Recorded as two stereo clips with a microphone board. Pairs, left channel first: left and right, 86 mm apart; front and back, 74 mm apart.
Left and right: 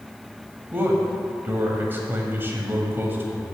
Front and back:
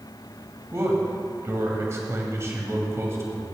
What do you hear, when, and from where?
0.7 s a man speaking: 145° right, 1.7 m